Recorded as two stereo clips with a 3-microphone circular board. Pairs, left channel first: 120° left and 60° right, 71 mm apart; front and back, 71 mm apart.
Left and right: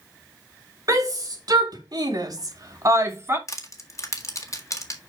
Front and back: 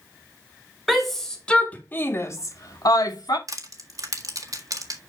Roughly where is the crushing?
Behind left.